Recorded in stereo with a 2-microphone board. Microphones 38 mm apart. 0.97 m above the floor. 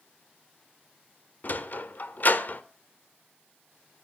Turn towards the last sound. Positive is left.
turn(degrees=50)  # may be behind; listen again after turning